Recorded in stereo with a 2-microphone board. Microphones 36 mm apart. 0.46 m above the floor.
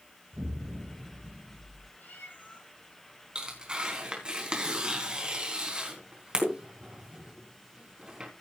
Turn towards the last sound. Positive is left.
turn(degrees=-25)  # may be behind; listen again after turning